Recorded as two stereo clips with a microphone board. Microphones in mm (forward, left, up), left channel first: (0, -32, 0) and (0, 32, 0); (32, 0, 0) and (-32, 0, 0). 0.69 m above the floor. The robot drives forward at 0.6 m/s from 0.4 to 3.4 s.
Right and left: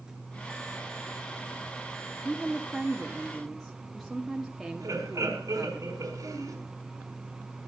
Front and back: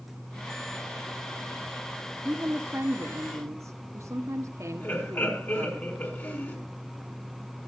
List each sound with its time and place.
2.2 s a woman speaking: 170° left, 0.9 m; by 5.8 s straight behind, 1.3 m
4.8 s laughter: 55° left, 6 m